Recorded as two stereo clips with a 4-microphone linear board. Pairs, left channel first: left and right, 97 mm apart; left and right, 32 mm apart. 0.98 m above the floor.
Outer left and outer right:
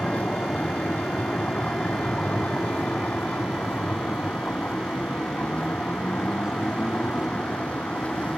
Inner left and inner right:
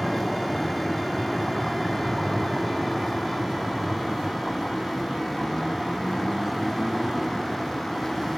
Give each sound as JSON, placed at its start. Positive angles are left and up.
{"t": 0.0, "sound": "a vehicle", "side_deg": 15}